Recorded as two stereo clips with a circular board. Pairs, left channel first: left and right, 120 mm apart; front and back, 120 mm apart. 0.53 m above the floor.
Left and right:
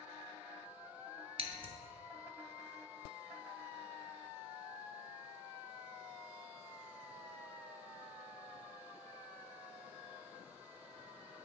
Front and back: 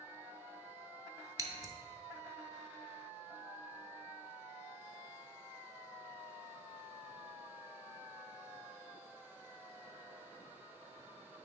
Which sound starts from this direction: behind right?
Scissors, at 1.4 s.